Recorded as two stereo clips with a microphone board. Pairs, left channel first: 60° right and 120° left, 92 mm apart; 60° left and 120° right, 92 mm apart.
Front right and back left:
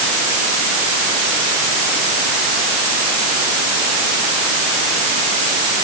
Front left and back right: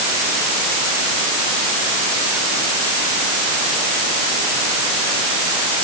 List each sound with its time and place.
Only background noise.